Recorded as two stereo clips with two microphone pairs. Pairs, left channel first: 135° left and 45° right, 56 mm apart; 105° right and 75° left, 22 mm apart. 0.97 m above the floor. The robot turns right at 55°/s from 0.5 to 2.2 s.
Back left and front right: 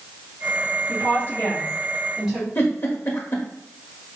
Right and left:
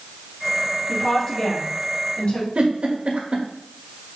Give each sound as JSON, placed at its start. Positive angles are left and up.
{"t": 0.9, "sound": "a woman speaking", "azimuth_deg": 165, "distance_m": 2.5}
{"t": 2.5, "sound": "a giggle", "azimuth_deg": 95, "distance_m": 1.0}